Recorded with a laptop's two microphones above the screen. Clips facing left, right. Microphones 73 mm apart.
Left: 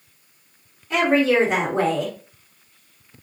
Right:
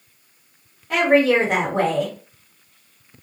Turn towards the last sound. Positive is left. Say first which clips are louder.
# right 2 dB
turn(degrees=-60)  # may be behind; listen again after turning